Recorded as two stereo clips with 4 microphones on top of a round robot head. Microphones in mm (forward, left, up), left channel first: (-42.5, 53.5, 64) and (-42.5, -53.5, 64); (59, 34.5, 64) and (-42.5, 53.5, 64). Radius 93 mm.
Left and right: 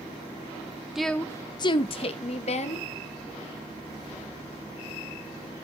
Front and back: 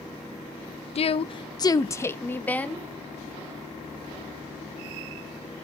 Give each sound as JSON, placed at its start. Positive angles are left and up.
{"t": 0.9, "sound": "a woman speaking", "azimuth_deg": -5, "distance_m": 0.6}